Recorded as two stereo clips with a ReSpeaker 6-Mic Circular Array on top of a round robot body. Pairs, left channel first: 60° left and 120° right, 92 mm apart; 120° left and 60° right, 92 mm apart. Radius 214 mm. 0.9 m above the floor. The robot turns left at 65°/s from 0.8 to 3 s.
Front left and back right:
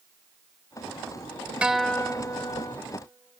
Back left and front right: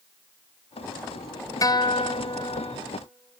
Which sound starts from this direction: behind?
A guitar, at 1.6 s.